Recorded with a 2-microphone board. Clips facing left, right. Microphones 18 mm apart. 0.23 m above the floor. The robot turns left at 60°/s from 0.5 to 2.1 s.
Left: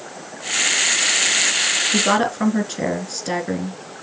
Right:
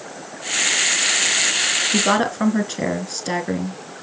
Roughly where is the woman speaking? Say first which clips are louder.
Even; centre.